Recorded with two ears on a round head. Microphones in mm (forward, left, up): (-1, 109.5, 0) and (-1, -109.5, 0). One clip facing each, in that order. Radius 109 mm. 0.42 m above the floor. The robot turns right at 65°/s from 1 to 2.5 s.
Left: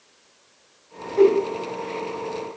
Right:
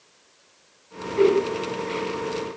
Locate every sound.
1.2 s a whoosh: 45° left (ahead or behind), 0.7 m; by 1.4 s 40° left (ahead or behind), 0.7 m